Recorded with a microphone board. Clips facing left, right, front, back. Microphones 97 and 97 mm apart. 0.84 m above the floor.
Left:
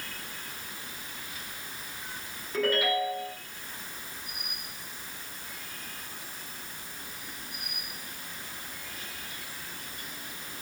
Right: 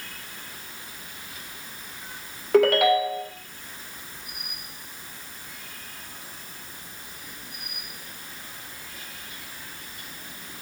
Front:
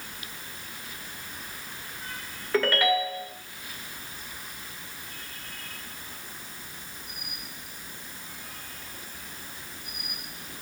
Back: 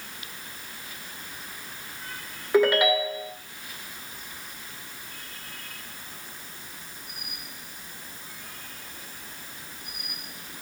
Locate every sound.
2.5 s a ringtone: 105° right, 1.6 m